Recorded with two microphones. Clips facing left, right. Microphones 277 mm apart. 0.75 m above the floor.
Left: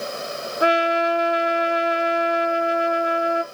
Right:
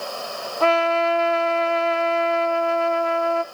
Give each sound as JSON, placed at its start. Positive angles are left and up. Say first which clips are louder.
{"t": 0.6, "sound": "a trumpet", "louder": "even", "side_deg": 15, "distance_m": 0.6}